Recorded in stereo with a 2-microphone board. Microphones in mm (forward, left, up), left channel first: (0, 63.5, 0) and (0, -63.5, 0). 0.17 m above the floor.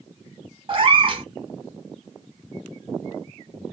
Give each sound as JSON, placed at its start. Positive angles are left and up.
{"t": 0.7, "sound": "a cat meowing", "side_deg": -40, "distance_m": 0.8}